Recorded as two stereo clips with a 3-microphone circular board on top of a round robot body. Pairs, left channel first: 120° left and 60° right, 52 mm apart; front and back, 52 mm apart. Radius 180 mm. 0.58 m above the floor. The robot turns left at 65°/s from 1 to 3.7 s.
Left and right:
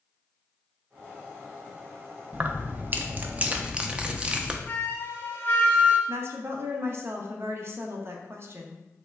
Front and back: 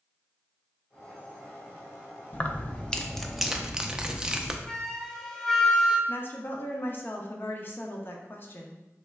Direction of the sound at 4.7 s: 80° left.